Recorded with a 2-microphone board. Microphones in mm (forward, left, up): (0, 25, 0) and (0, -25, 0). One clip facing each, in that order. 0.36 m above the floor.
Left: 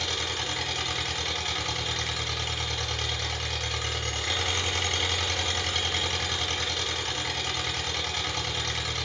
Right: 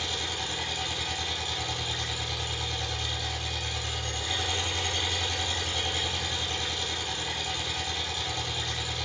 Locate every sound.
0.0 s an engine running: 70° left (ahead or behind), 1.3 m